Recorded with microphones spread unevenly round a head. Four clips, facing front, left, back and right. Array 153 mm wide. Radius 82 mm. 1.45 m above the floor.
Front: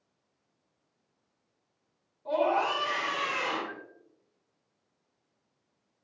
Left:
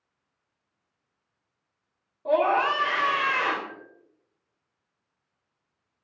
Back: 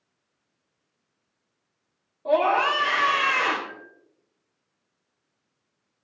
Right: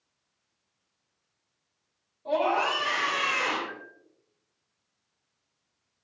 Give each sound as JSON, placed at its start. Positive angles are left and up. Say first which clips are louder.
{"t": 2.2, "sound": "a scream", "louder": "left 4 dB, back 6 dB", "azimuth_deg": 150, "distance_m": 3.0}
{"t": 3.7, "sound": "a bell", "louder": "right 2 dB, back 1 dB", "azimuth_deg": 15, "distance_m": 3.5}